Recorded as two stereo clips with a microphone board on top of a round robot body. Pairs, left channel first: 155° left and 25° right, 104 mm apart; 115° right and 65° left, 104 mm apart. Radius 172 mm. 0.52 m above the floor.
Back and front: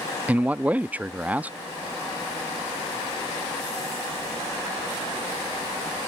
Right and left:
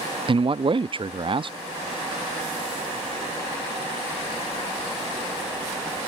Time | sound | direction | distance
0.3 | a man speaking | 50° left | ?